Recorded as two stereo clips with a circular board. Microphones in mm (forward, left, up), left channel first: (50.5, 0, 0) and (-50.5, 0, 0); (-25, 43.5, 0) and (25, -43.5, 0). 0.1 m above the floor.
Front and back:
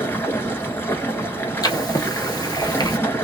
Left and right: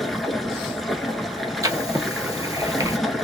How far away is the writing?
About 0.9 m.